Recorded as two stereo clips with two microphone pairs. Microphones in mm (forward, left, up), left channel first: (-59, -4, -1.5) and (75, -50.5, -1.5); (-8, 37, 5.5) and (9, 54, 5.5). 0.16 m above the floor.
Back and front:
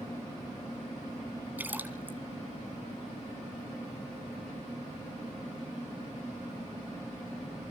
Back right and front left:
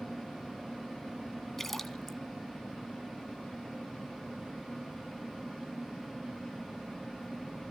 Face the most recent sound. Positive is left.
turn(degrees=-65)